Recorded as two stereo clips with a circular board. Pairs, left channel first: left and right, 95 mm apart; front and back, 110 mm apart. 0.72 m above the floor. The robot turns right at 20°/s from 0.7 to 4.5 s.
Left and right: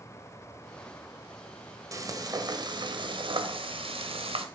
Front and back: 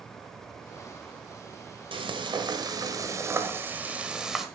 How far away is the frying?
About 1.6 m.